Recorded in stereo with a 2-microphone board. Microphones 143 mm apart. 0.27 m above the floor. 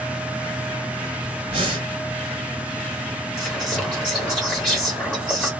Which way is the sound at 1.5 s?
45° right (ahead or behind).